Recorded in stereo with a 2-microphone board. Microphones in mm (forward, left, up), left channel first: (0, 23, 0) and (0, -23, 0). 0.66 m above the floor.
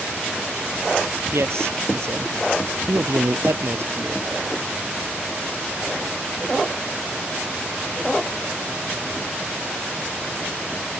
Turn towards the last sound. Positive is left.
turn(degrees=-70)  # may be behind; listen again after turning